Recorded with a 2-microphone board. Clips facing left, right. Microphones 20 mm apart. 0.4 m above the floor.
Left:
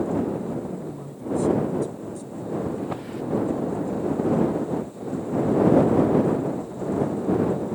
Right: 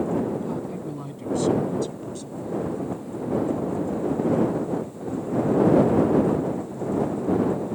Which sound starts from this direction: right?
A man speaking, at 0.4 s.